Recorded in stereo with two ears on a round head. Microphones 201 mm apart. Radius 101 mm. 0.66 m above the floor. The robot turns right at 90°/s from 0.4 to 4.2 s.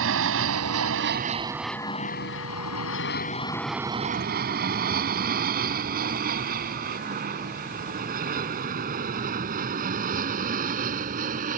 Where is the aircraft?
65° right (ahead or behind); by 11.6 s 40° right (ahead or behind).